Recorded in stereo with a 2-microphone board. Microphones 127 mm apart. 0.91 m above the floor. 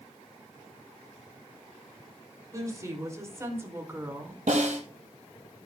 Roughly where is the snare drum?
Right.